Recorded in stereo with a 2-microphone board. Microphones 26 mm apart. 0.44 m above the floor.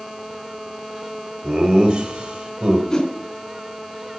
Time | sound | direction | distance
1.4 | laughter | 40° right (ahead or behind) | 2 m
2.9 | a whoosh | 20° left (ahead or behind) | 2.5 m